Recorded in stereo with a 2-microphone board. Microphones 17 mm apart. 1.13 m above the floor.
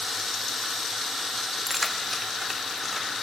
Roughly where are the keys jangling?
Centre.